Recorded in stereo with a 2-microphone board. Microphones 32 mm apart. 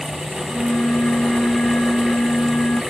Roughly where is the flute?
Left.